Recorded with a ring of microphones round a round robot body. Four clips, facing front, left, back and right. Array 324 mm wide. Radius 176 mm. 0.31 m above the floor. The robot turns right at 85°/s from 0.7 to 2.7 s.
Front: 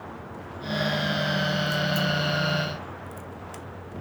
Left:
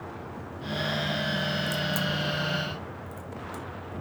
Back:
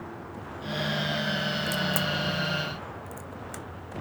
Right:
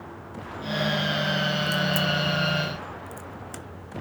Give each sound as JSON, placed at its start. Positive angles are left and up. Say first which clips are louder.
{"t": 1.7, "sound": "a crack", "louder": "right 4 dB, front 3 dB", "azimuth_deg": 165, "distance_m": 0.7}